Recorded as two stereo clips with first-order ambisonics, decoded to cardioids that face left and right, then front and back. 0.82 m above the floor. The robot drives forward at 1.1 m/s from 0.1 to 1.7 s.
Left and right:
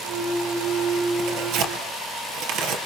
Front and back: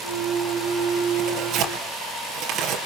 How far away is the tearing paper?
About 4 m.